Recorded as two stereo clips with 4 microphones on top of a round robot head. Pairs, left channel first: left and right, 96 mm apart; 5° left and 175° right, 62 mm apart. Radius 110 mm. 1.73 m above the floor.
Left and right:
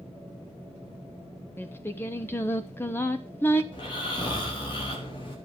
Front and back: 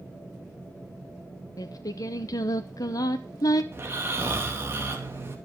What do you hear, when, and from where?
1.6 s singing: 25° left, 1.1 m
3.7 s snoring: 130° left, 3.5 m